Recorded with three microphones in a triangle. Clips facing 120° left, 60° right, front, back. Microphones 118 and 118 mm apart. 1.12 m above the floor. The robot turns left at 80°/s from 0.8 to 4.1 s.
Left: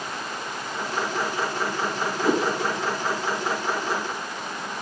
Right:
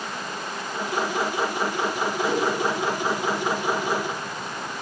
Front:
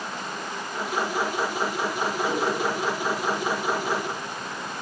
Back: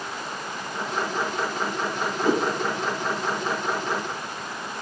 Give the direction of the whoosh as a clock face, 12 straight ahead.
7 o'clock.